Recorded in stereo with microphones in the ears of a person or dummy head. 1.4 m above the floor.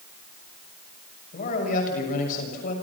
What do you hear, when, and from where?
1.3 s a man speaking: 50° left (ahead or behind), 7 m